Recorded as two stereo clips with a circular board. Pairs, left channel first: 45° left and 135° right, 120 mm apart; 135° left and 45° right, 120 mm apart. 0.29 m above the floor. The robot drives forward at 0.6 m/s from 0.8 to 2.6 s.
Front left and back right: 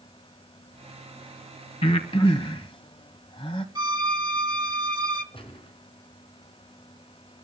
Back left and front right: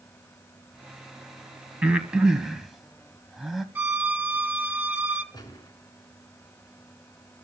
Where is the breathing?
30° left, 2 m; by 3.6 s 40° left, 1.7 m.